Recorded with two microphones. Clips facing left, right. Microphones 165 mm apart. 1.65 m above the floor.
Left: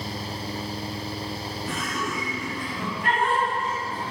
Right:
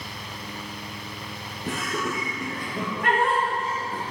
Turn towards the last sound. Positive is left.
turn(degrees=-80)